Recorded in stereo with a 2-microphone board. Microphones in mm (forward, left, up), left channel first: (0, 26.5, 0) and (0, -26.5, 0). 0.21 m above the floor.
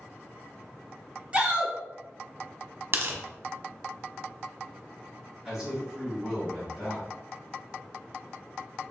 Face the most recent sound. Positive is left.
turn(degrees=-10)  # may be behind; listen again after turning